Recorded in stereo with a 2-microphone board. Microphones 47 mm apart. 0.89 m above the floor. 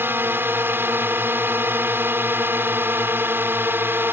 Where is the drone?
55° right (ahead or behind).